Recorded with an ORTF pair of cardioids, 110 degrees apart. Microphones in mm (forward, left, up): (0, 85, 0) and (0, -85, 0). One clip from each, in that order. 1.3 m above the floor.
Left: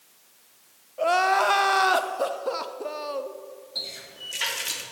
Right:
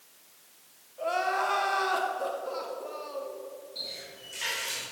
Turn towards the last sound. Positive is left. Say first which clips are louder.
# left 6 dB
turn(degrees=60)